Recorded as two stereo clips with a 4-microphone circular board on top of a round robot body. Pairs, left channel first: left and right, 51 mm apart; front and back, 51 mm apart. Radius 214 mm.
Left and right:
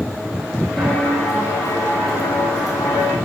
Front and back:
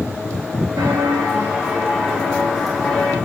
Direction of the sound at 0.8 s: 175° left.